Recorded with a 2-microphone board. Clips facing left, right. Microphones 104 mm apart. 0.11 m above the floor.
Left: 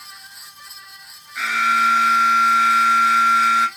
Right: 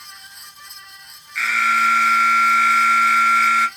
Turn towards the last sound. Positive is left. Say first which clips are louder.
# even
turn(degrees=20)  # may be behind; listen again after turning